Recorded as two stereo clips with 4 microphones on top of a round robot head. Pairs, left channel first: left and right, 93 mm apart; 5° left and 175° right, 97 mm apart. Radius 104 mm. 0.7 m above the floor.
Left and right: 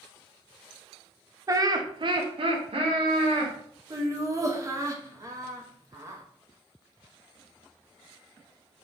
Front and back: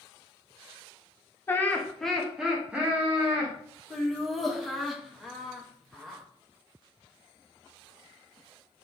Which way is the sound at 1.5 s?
45° right.